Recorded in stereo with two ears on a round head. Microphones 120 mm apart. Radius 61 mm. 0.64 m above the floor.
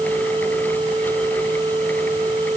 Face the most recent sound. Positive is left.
No sound to turn to.